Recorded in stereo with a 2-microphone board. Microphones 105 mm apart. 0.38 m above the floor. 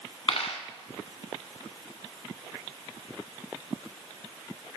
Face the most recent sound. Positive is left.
turn(degrees=65)  # may be behind; listen again after turning